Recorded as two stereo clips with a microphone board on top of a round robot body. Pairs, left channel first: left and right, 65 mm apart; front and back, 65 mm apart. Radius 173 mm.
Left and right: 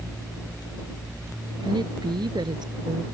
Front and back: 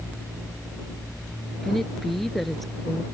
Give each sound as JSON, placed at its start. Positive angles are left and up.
{"t": 1.6, "sound": "a woman speaking", "azimuth_deg": -85}